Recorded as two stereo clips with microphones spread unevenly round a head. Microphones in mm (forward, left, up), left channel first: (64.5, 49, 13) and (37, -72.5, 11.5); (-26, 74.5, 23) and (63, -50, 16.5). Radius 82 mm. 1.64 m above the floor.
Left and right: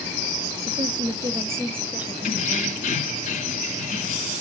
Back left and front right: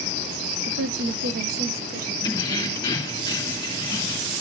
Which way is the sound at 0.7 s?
55° right.